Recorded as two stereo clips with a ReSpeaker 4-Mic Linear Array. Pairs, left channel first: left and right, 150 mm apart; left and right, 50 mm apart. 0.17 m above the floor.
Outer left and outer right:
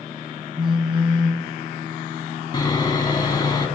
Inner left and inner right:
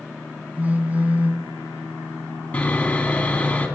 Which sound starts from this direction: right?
A phone buzzing, at 0.6 s.